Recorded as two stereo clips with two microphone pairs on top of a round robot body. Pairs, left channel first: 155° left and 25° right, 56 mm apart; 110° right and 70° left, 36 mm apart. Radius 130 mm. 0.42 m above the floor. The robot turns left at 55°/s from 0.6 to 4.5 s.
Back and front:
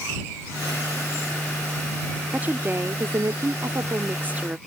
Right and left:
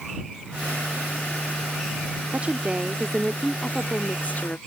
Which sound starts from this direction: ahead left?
A woman speaking, at 2.3 s.